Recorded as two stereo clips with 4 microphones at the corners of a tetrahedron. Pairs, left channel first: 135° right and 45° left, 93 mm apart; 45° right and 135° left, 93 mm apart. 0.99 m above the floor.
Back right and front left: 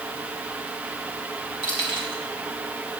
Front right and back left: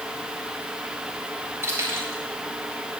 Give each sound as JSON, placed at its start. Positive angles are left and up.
{"t": 1.6, "sound": "keys jangling", "azimuth_deg": -165, "distance_m": 4.0}